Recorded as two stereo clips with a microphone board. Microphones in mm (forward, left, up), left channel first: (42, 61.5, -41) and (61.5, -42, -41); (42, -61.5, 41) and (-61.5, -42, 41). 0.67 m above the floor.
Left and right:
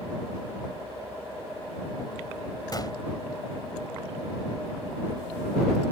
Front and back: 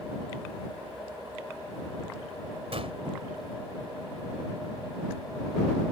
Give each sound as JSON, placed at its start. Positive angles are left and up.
{"t": 2.7, "sound": "a gunshot", "azimuth_deg": 150}